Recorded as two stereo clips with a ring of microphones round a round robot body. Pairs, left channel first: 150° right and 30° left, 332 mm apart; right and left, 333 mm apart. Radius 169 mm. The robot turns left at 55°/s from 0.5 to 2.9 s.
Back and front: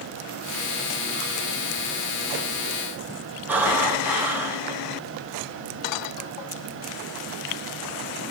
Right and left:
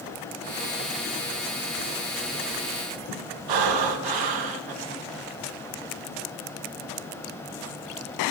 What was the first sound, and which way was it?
Breathing, 115° left.